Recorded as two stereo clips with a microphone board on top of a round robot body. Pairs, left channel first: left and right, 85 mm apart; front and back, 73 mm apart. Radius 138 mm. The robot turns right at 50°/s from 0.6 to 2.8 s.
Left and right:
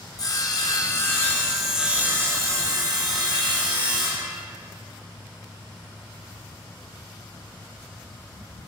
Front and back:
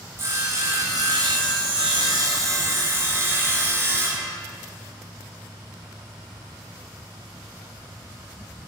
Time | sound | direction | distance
0.2 | sawing | 130° left | 3 m